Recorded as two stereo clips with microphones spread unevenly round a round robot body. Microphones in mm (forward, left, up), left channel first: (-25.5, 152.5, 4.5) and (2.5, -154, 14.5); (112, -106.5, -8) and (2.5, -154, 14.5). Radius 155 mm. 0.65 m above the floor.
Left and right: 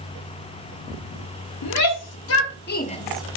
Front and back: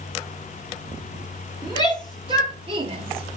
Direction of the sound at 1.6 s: 130° left.